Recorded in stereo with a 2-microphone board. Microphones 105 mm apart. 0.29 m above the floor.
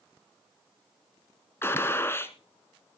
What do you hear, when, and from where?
1.6 s a gunshot: 25° left (ahead or behind), 1.3 m